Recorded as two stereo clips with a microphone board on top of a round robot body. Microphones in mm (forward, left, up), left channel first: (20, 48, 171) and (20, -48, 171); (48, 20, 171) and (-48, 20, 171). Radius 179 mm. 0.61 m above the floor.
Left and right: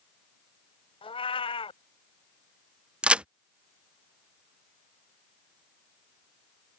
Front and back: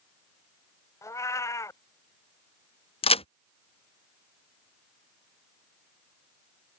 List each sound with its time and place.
1.0 s a cat meowing: 60° left
3.0 s a crack: 10° right